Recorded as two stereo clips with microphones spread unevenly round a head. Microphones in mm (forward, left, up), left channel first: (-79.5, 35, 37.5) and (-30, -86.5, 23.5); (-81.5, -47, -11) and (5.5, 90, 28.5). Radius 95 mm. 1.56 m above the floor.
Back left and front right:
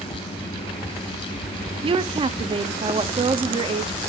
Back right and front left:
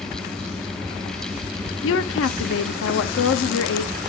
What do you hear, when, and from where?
1.8 s a woman speaking: 120° right, 0.5 m